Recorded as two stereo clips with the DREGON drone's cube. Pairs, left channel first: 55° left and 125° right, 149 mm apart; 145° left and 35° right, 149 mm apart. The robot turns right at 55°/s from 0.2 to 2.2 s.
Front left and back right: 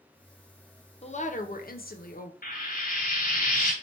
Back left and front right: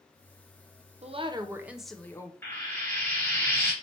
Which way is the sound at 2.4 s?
70° left.